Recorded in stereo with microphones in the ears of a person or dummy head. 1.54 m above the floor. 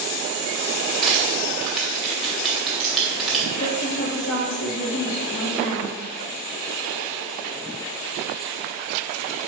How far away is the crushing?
About 2 m.